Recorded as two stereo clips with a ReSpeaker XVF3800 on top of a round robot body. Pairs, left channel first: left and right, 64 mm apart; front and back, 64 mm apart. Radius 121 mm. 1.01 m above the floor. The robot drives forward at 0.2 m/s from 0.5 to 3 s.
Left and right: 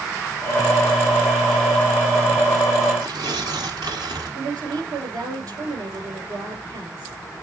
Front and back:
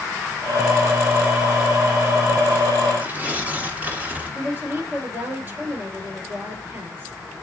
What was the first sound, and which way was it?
Tearing paper, 115° right.